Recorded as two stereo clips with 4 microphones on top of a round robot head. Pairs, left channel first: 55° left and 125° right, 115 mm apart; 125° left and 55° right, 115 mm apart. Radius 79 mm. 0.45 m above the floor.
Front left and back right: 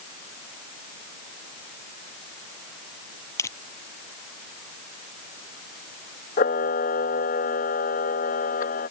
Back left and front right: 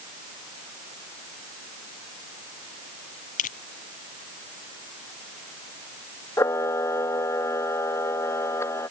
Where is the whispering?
No whispering in this recording.